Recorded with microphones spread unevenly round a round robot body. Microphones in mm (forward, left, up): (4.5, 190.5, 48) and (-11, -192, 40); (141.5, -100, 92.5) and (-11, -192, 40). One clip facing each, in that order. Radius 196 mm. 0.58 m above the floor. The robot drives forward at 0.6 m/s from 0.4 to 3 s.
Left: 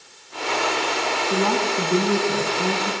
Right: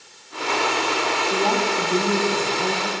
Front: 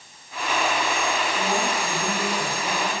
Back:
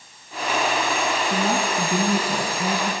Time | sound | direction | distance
1.3 | a woman speaking | 155° left | 5 m